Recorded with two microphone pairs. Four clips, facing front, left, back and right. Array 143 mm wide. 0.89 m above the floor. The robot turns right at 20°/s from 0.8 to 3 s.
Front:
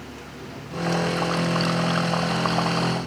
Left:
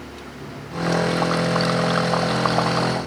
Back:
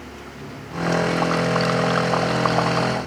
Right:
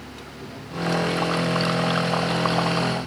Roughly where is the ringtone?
No ringtone in this recording.